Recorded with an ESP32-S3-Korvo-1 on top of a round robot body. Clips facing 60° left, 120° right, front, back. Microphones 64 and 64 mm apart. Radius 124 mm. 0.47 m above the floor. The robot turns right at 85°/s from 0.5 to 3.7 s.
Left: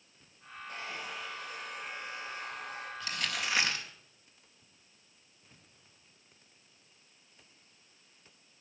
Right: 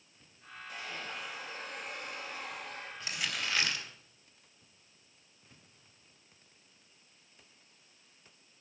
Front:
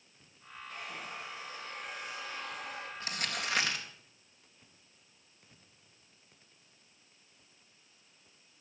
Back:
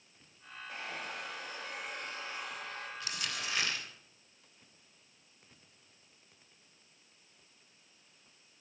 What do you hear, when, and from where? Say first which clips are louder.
0.7 s a hair dryer: left 1 dB, back 2 dB; 110° left, 5 m; by 2.9 s 65° right, 5 m
3.0 s crumpling: left 1 dB, front 4 dB; 55° right, 3.5 m; by 3.9 s 5° left, 3.5 m